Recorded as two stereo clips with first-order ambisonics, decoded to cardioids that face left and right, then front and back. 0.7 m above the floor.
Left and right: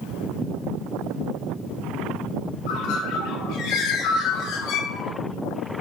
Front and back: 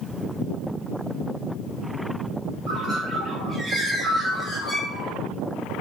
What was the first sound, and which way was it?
A bird, 100° left.